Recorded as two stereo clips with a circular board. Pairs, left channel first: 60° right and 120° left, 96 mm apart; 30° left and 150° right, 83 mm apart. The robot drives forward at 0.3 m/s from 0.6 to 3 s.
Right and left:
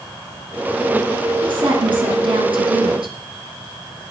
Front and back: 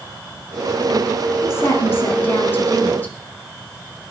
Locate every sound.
1.4 s a woman speaking: 85° left, 3 m; by 3.1 s 95° left, 3 m